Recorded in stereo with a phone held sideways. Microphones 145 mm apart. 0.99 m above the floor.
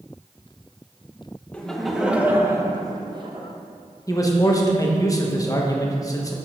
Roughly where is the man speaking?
Left.